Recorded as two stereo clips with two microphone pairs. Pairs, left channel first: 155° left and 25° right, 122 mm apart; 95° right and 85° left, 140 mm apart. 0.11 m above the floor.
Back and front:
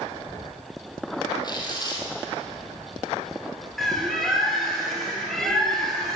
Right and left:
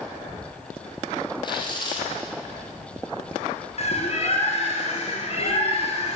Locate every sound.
1.4 s tearing paper: 150° right, 2.5 m
3.8 s a bird: 115° right, 2 m